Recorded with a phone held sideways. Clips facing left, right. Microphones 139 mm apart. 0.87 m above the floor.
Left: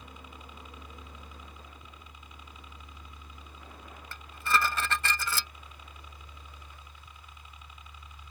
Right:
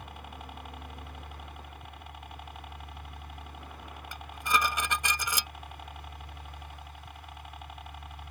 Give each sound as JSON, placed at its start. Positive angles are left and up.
{"t": 0.0, "sound": "a helicopter", "side_deg": -60}
{"t": 4.1, "sound": "dishes clattering", "side_deg": -15}